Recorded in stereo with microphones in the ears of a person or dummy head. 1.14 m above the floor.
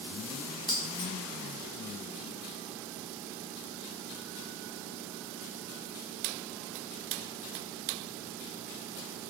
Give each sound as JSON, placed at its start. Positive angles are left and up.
{"t": 0.7, "sound": "keys jangling", "side_deg": 25, "distance_m": 0.6}